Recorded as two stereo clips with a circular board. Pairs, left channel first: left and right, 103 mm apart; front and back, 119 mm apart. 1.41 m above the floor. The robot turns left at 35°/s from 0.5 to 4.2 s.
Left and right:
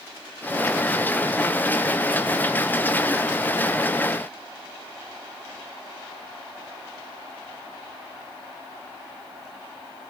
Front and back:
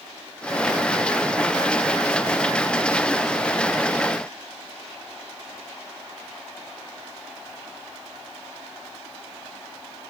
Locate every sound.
Only background noise.